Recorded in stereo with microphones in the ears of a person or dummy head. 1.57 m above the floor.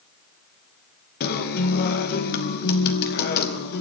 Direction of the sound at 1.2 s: 55° left (ahead or behind).